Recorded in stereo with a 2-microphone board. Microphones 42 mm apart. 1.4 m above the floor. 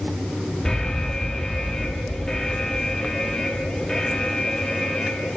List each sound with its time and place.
0.7 s an alarm: 15° left (ahead or behind), 3.5 m